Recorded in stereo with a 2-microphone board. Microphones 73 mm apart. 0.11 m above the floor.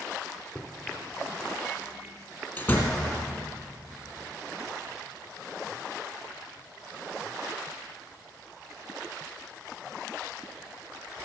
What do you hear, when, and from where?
0.6 s a microwave: 25° left (ahead or behind), 1.5 m
2.6 s a door slam: 30° left (ahead or behind), 2 m